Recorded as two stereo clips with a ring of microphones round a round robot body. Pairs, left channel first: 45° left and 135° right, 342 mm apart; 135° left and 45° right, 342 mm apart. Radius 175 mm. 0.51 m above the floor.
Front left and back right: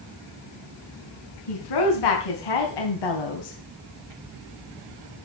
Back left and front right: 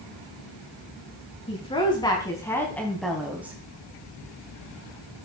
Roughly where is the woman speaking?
Ahead left.